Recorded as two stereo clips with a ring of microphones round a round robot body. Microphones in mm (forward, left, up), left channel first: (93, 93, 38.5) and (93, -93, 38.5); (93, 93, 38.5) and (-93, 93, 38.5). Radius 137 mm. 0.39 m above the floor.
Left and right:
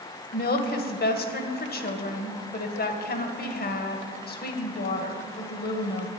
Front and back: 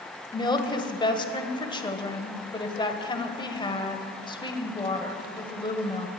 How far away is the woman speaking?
About 1.7 m.